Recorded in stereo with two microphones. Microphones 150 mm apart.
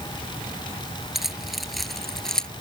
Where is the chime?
I don't hear a chime.